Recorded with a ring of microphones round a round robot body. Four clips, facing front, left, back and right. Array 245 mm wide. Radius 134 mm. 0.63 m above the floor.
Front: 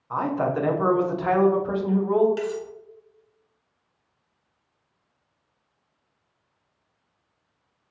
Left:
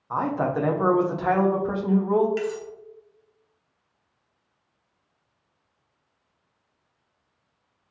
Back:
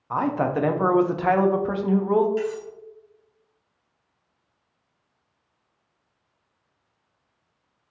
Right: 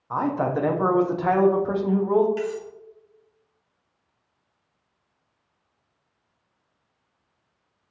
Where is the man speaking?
170° right, 0.6 m.